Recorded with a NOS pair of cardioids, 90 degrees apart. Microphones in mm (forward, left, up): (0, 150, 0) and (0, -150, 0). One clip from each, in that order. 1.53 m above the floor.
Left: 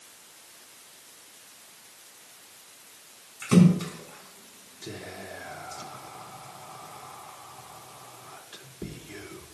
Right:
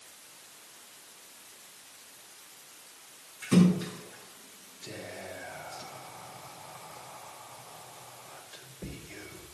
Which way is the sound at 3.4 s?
70° left.